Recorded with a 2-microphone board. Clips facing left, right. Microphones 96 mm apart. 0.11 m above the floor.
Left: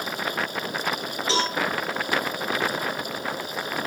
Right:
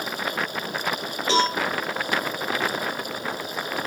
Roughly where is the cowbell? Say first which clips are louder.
Right 5 dB; right.